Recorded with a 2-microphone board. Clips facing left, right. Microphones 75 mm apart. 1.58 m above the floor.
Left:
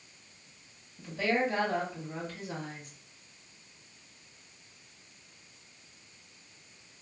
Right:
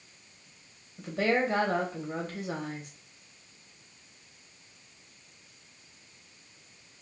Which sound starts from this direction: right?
A woman speaking, at 1.0 s.